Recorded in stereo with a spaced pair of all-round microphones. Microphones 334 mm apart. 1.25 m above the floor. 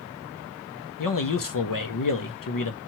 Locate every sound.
1.0 s a man speaking: 75° left (ahead or behind), 0.6 m